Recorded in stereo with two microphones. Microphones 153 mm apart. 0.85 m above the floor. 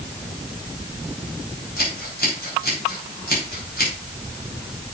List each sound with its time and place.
1.8 s scissors: 85° left, 5 m